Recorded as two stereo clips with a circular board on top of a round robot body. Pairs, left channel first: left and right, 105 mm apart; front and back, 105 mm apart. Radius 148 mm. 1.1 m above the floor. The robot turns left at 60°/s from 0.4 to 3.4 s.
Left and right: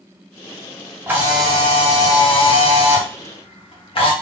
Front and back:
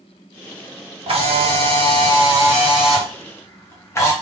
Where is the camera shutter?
155° right, 1.5 m; by 4.1 s 65° left, 1.5 m.